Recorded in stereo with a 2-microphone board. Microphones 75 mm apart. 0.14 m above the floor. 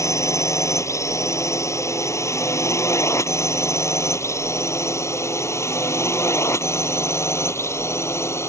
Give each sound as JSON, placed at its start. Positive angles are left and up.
{"t": 0.0, "sound": "a drone", "side_deg": 40}